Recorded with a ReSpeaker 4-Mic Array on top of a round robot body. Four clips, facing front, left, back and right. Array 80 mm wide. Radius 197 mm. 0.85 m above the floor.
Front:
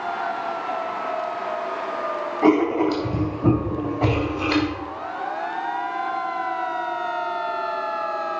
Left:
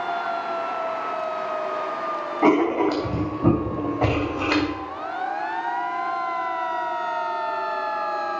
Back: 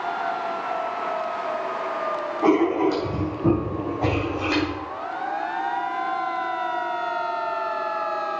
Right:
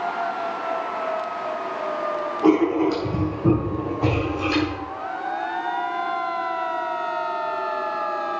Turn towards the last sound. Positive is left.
turn(degrees=75)